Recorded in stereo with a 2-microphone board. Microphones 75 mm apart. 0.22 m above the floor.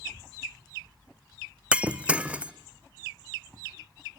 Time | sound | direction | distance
1.7 | breaking glass | 15° right (ahead or behind) | 0.7 m